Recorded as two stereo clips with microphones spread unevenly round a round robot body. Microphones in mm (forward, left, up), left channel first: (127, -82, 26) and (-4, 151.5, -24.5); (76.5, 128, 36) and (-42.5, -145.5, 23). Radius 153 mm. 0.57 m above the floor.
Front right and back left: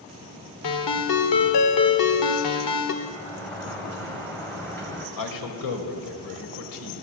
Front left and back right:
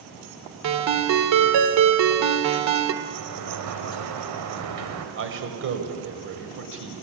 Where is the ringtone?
90° right, 1.6 m.